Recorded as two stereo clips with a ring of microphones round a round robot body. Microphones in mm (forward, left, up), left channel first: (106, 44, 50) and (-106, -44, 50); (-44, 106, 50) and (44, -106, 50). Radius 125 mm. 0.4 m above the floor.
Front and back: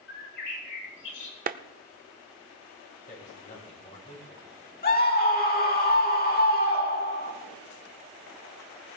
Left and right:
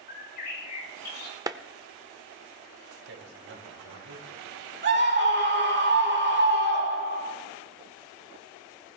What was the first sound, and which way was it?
A bird, 65° left.